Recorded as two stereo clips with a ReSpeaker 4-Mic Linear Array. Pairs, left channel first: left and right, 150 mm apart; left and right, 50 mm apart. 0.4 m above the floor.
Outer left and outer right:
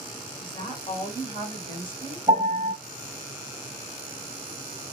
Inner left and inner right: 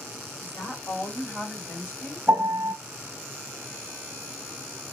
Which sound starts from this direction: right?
A piano, at 2.3 s.